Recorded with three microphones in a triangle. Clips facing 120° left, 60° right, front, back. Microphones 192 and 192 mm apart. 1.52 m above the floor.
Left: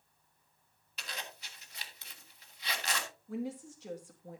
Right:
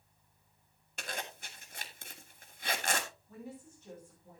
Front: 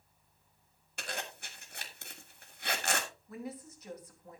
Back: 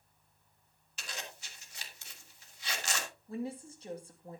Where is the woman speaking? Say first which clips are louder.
Left 9 dB, back 7 dB; 120° left, 2 m.